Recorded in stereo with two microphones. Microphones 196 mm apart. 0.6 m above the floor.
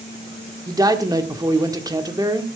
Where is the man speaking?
20° right (ahead or behind), 1.4 m.